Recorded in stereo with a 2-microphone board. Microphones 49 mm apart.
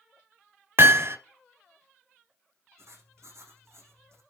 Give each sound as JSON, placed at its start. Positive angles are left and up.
{"t": 0.8, "sound": "hammering", "side_deg": -55, "distance_m": 1.2}
{"t": 2.8, "sound": "writing", "side_deg": -70, "distance_m": 6.0}